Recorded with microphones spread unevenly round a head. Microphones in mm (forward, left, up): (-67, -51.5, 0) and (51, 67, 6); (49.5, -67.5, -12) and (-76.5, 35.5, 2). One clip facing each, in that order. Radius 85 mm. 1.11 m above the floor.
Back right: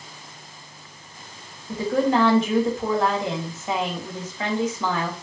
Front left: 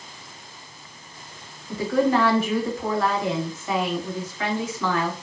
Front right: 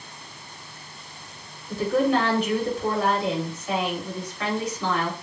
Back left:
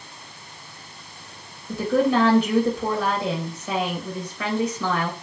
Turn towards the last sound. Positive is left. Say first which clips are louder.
# even, back left 1 dB
turn(degrees=155)